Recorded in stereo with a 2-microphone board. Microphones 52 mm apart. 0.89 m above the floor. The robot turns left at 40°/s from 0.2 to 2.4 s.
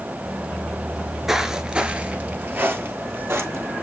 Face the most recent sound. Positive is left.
turn(degrees=-60)  # may be behind; listen again after turning